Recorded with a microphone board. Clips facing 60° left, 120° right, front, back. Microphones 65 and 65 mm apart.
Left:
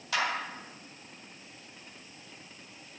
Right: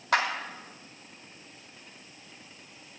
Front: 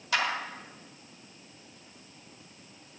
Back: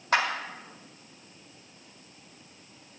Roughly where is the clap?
Behind right.